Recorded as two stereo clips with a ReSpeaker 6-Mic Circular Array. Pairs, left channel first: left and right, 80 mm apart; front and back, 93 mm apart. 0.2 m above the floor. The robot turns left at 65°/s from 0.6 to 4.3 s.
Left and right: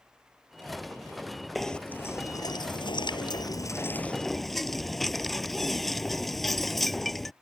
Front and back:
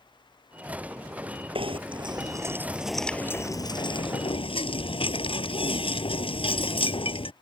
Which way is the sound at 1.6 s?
Straight behind.